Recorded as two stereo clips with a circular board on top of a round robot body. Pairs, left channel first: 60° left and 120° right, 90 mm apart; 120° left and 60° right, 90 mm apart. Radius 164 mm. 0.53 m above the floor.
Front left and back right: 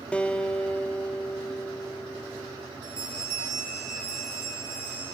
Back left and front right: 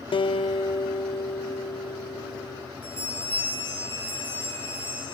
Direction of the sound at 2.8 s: 85° right.